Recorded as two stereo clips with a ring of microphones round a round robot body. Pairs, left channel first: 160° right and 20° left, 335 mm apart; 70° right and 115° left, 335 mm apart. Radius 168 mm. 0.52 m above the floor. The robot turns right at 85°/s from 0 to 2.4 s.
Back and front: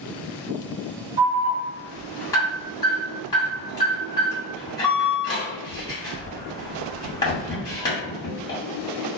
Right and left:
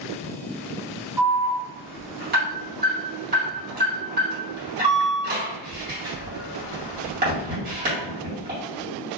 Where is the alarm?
35° left, 1.9 m; by 8.6 s 140° left, 1.9 m.